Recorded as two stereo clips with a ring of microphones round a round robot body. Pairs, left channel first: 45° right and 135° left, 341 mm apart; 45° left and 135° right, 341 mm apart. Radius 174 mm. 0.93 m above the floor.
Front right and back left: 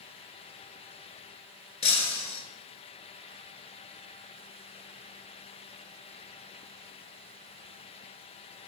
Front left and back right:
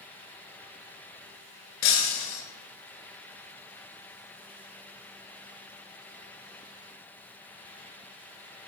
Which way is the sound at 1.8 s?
25° left.